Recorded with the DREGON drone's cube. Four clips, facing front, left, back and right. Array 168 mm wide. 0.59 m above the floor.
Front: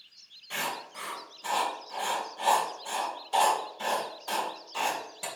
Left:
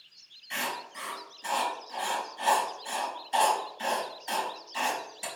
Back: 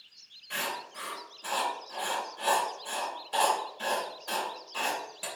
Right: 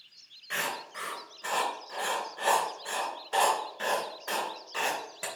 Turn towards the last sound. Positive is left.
turn(degrees=-80)